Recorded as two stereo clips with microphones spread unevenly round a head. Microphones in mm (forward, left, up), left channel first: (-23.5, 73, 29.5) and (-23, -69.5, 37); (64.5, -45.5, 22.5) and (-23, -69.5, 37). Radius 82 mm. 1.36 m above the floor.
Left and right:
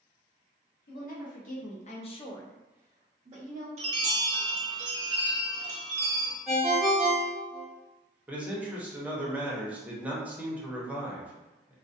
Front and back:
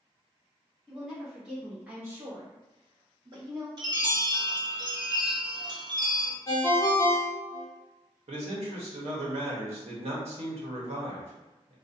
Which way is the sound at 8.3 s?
170° right.